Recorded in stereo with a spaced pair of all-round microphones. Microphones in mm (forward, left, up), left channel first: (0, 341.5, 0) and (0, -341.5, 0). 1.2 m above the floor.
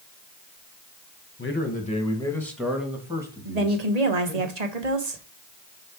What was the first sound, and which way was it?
A man speaking, 20° left (ahead or behind).